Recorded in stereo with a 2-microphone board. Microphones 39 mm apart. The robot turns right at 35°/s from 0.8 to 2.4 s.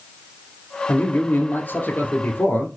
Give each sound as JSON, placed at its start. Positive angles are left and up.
{"t": 0.9, "sound": "a man speaking", "azimuth_deg": 60, "distance_m": 1.9}